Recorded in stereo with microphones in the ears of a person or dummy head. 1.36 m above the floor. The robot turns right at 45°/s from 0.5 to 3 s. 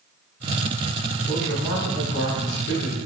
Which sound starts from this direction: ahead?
A man speaking, at 1.3 s.